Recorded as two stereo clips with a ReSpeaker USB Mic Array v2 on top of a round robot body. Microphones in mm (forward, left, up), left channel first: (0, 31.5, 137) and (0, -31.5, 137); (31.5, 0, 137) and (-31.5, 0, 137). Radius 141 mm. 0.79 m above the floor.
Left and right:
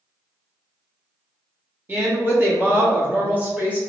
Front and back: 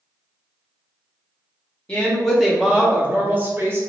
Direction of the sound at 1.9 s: 60° right.